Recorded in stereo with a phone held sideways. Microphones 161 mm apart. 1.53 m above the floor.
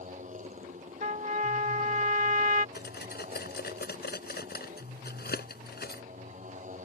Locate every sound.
0.0 s a motorcycle: 50° right (ahead or behind)
1.0 s a trumpet: 55° right (ahead or behind)
2.8 s cutlery clinking: 75° left (ahead or behind)